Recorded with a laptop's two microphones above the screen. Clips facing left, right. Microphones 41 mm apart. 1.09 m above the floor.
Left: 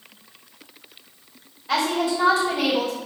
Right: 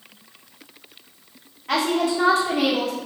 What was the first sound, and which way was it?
A woman speaking, 65° right (ahead or behind).